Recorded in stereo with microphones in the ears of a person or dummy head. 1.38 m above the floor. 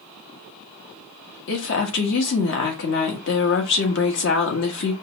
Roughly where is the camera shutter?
I don't hear a camera shutter.